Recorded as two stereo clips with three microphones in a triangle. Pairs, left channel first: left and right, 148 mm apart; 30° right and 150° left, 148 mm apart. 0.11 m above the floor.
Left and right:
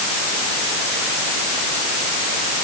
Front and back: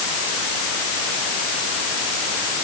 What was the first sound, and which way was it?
Only background noise.